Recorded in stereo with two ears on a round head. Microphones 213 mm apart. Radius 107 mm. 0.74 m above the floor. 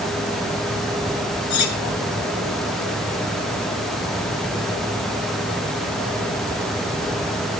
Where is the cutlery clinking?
75° left (ahead or behind), 4 m.